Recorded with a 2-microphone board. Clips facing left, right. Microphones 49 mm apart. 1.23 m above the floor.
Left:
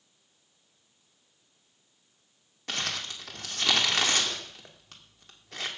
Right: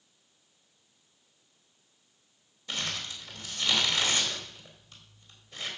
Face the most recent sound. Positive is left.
turn(degrees=70)  # may be behind; listen again after turning